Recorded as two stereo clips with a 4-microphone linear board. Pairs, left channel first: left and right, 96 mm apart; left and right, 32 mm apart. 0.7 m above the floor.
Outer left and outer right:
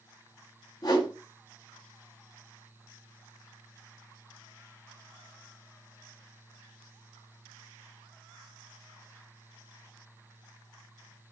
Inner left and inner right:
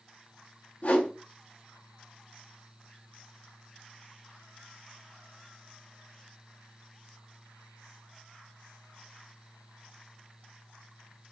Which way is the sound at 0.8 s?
45° left (ahead or behind).